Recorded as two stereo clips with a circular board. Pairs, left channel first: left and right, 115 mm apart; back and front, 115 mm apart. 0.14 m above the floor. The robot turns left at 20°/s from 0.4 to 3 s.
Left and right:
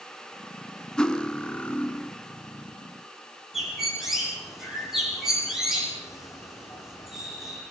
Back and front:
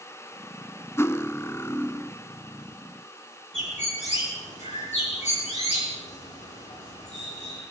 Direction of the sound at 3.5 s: Straight behind.